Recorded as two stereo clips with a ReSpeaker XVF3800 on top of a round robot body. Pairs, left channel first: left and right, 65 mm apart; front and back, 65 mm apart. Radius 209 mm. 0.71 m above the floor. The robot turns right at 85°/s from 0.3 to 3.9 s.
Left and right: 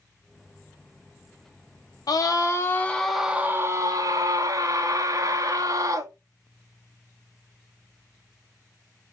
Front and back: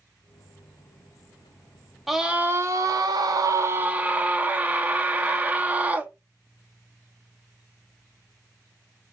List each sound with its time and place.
2.1 s a scream: 95° left, 0.7 m; by 6.1 s 110° right, 0.7 m